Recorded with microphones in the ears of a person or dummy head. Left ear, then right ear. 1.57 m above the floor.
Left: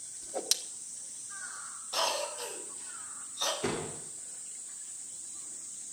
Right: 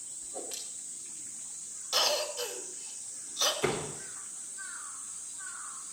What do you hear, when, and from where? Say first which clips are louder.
0.2 s a whoosh: left 11 dB; 55° left (ahead or behind), 1.6 m
1.9 s a cough: right 3 dB; 40° right (ahead or behind), 6 m
3.6 s a door slam: right 3 dB; 40° right (ahead or behind), 3 m